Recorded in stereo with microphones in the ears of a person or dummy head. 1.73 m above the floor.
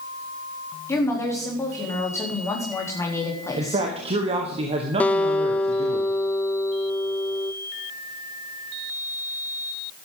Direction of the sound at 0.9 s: 25° left (ahead or behind).